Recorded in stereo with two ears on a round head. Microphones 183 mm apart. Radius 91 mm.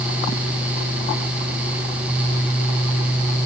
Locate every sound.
Only background noise.